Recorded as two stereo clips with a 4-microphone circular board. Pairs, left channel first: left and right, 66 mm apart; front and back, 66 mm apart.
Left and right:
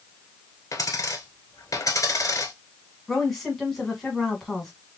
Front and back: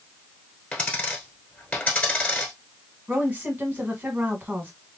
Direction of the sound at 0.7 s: 65° left.